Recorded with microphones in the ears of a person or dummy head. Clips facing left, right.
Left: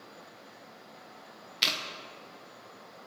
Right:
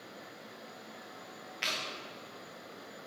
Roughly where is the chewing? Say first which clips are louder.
Left 4 dB; left.